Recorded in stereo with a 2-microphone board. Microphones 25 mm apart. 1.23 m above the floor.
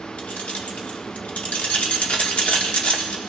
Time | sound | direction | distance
0.2 | keys jangling | 60° left (ahead or behind) | 1.7 m